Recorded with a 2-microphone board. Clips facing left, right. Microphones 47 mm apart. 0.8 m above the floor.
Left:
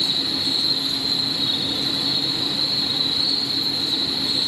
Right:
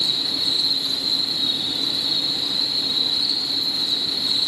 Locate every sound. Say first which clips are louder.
0.0 s an insect: left 1 dB; 60° left (ahead or behind), 4.5 m